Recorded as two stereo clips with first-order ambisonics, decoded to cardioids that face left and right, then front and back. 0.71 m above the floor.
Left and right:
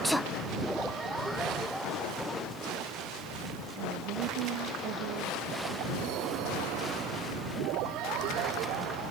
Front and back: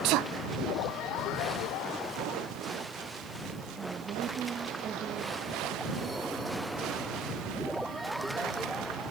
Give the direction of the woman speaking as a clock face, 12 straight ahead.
4 o'clock.